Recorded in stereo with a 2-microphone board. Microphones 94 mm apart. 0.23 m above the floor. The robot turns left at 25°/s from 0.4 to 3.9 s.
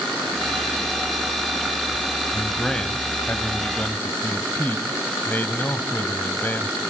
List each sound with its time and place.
2.3 s a man speaking: 175° left, 1.3 m; by 6.8 s 135° left, 1.3 m